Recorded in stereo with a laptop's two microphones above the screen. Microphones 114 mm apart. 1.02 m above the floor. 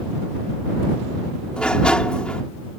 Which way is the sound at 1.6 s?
10° left (ahead or behind).